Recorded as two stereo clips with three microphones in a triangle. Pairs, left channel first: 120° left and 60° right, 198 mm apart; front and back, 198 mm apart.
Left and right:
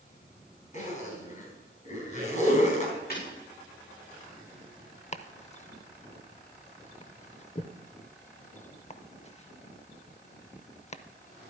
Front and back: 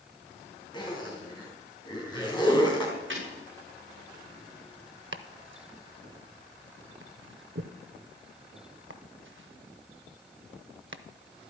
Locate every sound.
0.7 s a zipper: 70° left, 4 m
3.1 s breaking glass: 160° left, 7 m
5.1 s chopping: 175° left, 0.6 m